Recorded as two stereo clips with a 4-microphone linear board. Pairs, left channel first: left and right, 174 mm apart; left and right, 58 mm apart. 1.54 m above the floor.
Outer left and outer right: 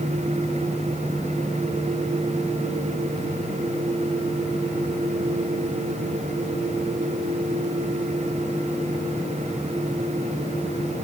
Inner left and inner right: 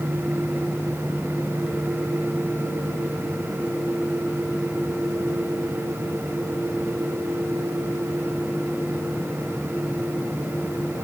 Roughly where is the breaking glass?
I don't hear breaking glass.